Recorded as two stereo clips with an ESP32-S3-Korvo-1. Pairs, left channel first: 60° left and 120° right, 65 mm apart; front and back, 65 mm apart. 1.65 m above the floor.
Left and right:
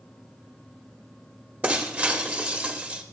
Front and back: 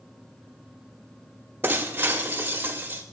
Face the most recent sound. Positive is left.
turn(degrees=-155)